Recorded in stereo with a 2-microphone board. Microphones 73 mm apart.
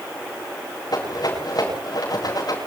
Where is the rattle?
60° left (ahead or behind), 8.5 m.